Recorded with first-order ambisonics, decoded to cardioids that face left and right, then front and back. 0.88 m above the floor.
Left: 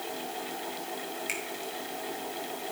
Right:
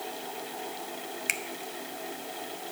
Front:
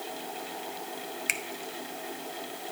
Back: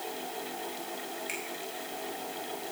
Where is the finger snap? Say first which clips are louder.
Right 5 dB, front 9 dB; 35° right, 0.5 m.